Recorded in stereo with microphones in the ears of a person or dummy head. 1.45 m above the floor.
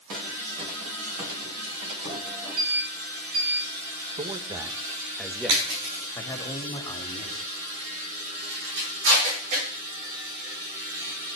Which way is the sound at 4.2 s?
30° right (ahead or behind).